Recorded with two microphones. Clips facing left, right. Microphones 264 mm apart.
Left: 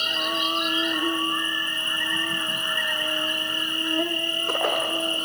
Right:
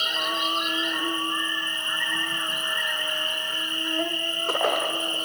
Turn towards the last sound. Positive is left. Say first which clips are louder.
# left 2 dB
turn(degrees=40)  # may be behind; listen again after turning